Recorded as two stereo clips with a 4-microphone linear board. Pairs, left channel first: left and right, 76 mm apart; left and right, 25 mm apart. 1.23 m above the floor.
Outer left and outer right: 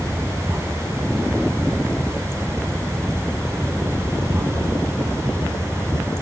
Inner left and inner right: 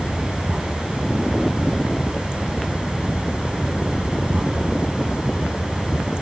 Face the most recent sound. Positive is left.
turn(degrees=-35)  # may be behind; listen again after turning